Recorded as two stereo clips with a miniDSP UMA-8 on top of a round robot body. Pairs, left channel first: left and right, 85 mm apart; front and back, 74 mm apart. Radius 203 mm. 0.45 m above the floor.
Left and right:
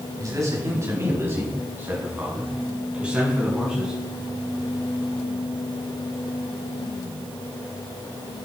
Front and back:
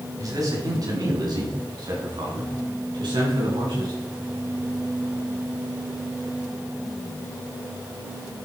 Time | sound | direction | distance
0.2 | a man speaking | 140° right | 4 m